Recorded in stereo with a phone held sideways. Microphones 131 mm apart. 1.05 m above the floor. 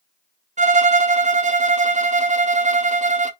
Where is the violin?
65° right (ahead or behind), 0.7 m.